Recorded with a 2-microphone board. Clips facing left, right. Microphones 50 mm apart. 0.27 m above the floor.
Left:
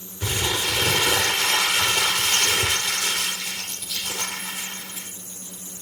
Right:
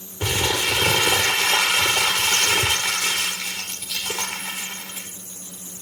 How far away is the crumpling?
About 4 m.